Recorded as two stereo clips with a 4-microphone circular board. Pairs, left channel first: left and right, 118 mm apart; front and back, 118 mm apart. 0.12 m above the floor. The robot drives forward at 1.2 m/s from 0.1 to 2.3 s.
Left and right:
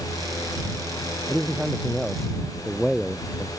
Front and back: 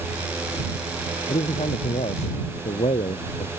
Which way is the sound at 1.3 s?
Straight ahead.